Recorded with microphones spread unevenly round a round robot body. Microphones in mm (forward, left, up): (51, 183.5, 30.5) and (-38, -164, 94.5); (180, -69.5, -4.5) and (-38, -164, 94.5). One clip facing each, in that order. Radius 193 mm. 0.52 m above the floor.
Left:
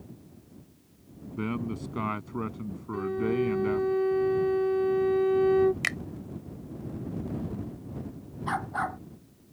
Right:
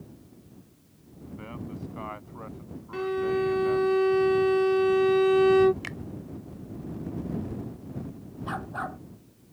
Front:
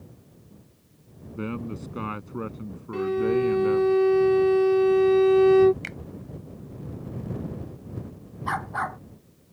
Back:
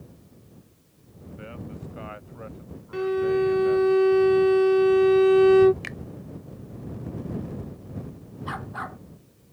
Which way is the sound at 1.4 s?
55° left.